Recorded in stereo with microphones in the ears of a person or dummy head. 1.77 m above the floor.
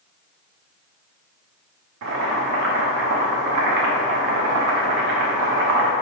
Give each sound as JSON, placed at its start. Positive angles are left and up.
{"t": 2.0, "sound": "boiling", "side_deg": -70, "distance_m": 0.7}